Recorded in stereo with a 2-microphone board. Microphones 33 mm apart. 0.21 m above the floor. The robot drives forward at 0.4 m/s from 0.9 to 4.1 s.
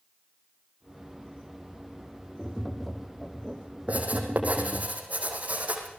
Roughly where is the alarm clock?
No alarm clock in this recording.